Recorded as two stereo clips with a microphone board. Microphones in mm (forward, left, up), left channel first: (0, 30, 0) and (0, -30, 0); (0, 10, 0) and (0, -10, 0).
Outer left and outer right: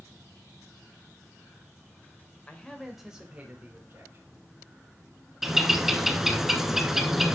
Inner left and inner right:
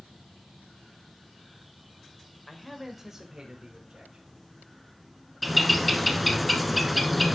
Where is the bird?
5° right (ahead or behind), 0.7 m.